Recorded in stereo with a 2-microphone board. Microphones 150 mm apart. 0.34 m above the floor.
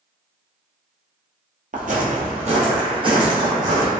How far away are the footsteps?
About 0.6 m.